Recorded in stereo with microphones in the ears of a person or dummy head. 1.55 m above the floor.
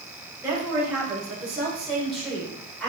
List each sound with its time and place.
0.4 s a woman speaking: 15° right (ahead or behind), 5 m; by 2.9 s centre (ahead or behind), 5 m